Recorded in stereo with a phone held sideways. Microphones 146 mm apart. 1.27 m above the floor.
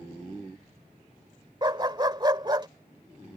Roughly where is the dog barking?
Right.